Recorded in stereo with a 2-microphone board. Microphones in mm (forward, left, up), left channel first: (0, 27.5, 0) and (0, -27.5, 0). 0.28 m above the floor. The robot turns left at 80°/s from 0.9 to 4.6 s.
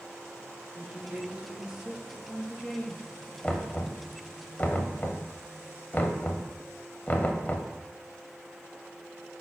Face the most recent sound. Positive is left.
turn(degrees=30)  # may be behind; listen again after turning